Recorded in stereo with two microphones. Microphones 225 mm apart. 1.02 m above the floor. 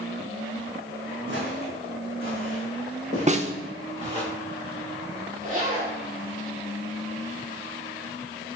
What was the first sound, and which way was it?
Footsteps, 55° right (ahead or behind).